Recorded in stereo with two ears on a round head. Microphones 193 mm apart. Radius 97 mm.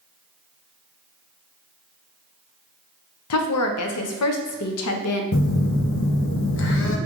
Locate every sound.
3.3 s a woman speaking: 75° left (ahead or behind), 0.6 m
5.3 s a phone buzzing: 65° left (ahead or behind), 0.5 m